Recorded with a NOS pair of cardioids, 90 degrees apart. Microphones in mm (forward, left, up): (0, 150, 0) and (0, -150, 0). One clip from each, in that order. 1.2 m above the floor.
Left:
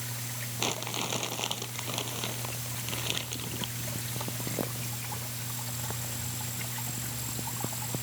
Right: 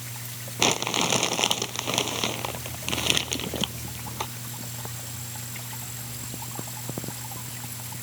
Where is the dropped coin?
I don't hear a dropped coin.